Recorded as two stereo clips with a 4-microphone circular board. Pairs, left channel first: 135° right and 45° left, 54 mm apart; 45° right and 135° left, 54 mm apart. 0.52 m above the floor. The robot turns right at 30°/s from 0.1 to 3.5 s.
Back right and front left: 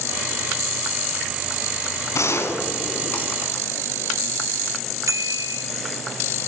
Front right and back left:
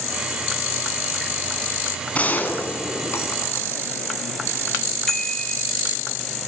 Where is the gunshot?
110° right, 5.5 m; by 3.6 s 70° right, 5.5 m.